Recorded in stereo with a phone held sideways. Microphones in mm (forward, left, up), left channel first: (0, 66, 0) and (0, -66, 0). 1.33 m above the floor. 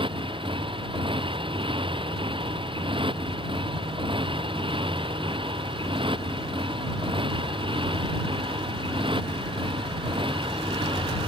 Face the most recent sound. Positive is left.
turn(degrees=-40)  # may be behind; listen again after turning